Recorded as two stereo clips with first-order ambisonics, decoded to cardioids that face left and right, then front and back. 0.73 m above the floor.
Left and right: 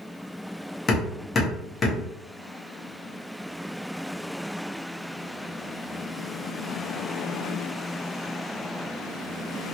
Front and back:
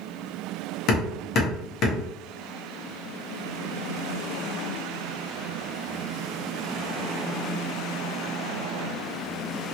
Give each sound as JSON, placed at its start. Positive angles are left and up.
{"t": 0.9, "sound": "hammering", "azimuth_deg": 30, "distance_m": 1.0}